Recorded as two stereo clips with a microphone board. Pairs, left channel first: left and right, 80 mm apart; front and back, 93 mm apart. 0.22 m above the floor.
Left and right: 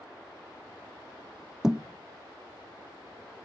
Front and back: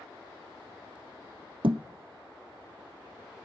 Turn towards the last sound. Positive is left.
turn(degrees=-170)